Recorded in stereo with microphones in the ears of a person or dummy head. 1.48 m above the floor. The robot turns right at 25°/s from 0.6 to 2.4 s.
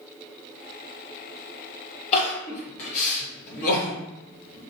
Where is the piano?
I don't hear a piano.